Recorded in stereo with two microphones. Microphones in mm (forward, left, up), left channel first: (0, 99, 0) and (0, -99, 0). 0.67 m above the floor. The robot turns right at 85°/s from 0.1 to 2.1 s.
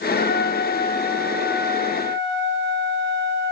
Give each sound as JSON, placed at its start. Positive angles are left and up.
{"t": 0.1, "sound": "a trumpet", "azimuth_deg": 85, "distance_m": 1.6}